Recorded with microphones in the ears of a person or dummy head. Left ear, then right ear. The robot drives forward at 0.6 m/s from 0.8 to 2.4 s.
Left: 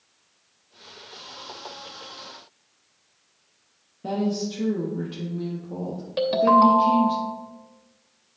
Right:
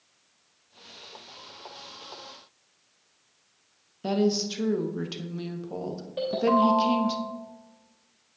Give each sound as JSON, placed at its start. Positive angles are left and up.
{"t": 4.0, "sound": "a woman speaking", "side_deg": -50, "distance_m": 0.8}
{"t": 6.2, "sound": "a ringtone", "side_deg": 50, "distance_m": 2.0}